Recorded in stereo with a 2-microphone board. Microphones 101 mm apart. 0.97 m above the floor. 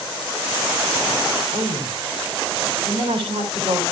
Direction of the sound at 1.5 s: 55° right (ahead or behind).